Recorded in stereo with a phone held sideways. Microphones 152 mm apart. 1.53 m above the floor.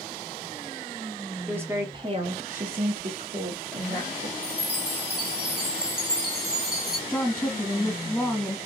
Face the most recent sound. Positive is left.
turn(degrees=0)  # may be behind; listen again after turning